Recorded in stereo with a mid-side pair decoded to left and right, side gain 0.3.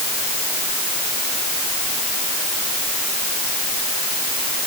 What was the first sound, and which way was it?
Only background noise.